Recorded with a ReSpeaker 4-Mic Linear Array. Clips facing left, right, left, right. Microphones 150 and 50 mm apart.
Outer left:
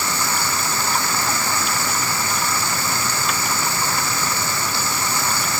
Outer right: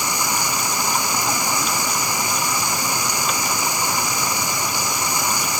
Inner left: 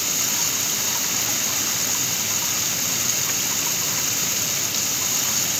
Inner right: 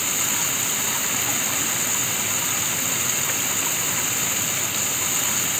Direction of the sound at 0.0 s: 15° right (ahead or behind).